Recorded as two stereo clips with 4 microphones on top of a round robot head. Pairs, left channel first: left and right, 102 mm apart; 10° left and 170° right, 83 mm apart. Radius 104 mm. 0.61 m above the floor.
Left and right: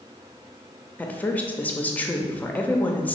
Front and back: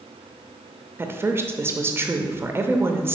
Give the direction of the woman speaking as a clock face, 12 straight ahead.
7 o'clock.